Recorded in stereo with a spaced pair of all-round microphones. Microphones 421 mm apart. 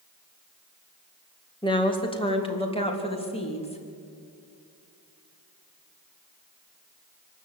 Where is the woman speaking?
10° left (ahead or behind), 2.5 m; by 3.8 s 15° left (ahead or behind), 3.5 m.